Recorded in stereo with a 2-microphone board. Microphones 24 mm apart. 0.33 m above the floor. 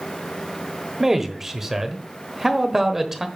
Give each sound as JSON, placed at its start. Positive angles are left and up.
{"t": 1.0, "sound": "a man speaking", "side_deg": -15, "distance_m": 1.2}